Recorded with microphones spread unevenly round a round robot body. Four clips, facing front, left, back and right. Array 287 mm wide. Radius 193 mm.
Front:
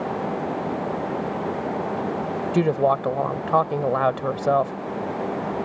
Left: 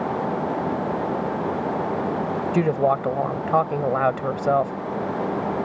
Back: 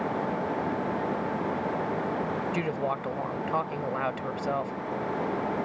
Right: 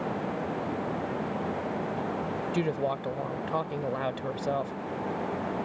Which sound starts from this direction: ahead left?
A woman speaking, at 2.5 s.